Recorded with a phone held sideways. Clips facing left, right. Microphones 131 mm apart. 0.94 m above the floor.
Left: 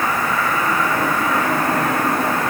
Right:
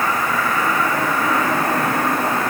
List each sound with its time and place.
Only background noise.